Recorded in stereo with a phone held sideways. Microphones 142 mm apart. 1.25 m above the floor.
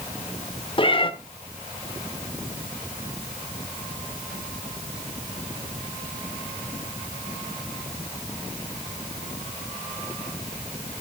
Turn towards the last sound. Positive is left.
turn(degrees=35)  # may be behind; listen again after turning